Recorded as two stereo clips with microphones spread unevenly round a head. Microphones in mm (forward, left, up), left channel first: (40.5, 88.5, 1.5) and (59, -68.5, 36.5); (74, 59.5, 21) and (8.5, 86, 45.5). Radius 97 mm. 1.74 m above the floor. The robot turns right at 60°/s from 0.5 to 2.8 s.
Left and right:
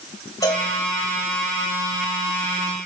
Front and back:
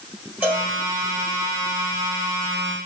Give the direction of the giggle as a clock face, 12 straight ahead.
I don't hear a giggle.